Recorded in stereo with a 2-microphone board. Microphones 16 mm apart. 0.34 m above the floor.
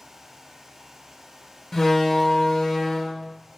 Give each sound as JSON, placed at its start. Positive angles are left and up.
{"t": 1.7, "sound": "a door slam", "side_deg": 25, "distance_m": 0.6}